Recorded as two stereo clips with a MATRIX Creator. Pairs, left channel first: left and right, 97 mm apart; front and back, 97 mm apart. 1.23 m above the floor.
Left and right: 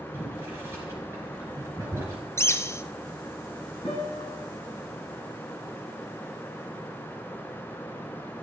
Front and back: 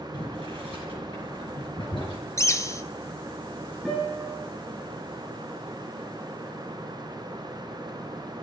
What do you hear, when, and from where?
0.1 s boiling: 25° right, 5 m
2.4 s a bird: 40° left, 0.6 m
3.9 s a guitar: 85° left, 6 m